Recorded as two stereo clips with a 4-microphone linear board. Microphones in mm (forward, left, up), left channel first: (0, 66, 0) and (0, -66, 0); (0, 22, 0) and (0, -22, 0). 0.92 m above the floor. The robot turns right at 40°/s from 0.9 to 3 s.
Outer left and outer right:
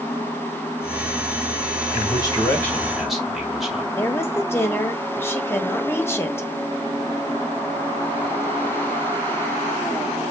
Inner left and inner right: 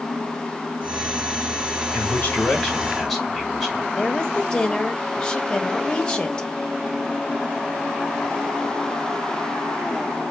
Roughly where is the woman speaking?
Centre.